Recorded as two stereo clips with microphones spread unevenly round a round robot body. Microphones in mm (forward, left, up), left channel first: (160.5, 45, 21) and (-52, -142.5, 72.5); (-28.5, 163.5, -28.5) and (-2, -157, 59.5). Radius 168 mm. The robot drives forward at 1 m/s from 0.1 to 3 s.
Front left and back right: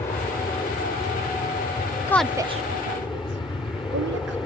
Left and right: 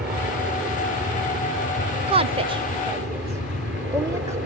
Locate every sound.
0.0 s an aircraft: 20° right; by 4.5 s 30° right
2.1 s a woman speaking: straight ahead; by 4.4 s straight behind